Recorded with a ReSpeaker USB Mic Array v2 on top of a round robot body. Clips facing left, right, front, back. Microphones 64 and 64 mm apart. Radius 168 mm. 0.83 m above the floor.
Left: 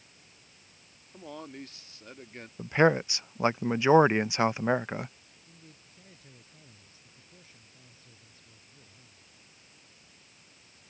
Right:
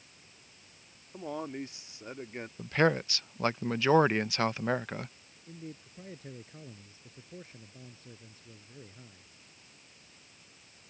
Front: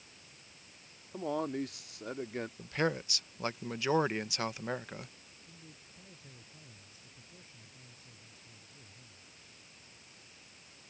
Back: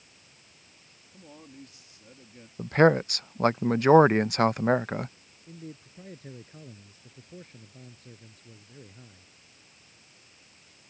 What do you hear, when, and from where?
1.1 s a man speaking: 15° right
2.6 s a man speaking: 160° left
5.5 s a man speaking: 140° right